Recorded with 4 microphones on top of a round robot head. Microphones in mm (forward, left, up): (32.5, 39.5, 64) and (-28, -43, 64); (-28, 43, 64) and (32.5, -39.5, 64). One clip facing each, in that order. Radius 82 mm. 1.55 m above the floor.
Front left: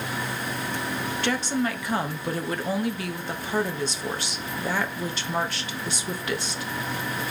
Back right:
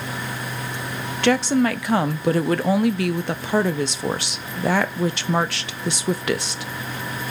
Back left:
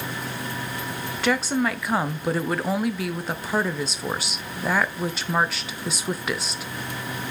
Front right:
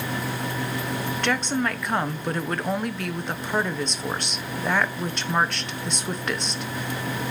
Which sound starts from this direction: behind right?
A woman speaking, at 1.2 s.